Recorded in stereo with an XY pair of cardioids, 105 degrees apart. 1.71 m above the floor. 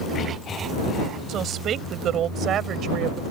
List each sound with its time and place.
1.3 s a woman speaking: 65° right